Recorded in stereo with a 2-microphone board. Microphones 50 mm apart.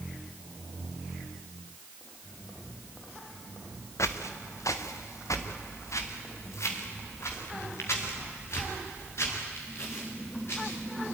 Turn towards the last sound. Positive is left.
turn(degrees=55)  # may be behind; listen again after turning